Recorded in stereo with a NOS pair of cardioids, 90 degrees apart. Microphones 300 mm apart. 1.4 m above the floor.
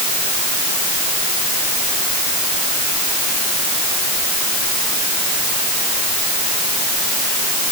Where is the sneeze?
No sneeze in this recording.